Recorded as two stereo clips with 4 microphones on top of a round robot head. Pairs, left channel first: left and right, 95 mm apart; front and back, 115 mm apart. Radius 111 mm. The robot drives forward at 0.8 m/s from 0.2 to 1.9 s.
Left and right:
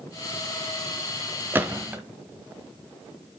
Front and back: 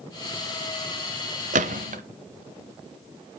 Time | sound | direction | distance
1.5 | a gunshot | 165° right | 0.7 m